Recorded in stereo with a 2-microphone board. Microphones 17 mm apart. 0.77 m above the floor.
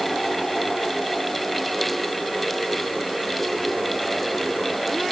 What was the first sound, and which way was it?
Only background noise.